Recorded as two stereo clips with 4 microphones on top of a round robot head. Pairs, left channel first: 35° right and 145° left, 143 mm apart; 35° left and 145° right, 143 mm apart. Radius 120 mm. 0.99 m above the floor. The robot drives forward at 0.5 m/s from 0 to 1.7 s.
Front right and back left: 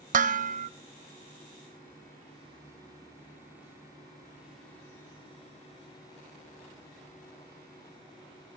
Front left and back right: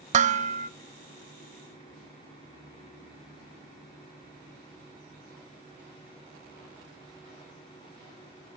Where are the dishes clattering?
175° left, 0.9 m.